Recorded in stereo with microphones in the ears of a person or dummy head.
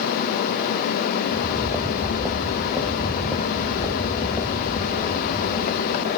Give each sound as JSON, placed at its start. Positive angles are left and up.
{"t": 1.3, "sound": "footsteps", "side_deg": -10, "distance_m": 1.8}